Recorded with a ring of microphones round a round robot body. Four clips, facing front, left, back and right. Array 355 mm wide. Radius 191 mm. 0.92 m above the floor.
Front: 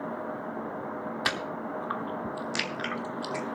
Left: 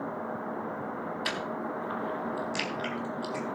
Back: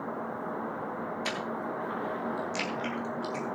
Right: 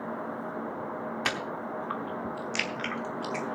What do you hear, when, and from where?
1.2 s chewing: 35° right, 1.0 m